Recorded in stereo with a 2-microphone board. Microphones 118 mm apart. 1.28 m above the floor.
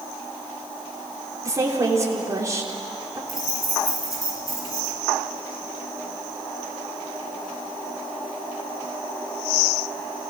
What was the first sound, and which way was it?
A woman speaking, 25° right (ahead or behind).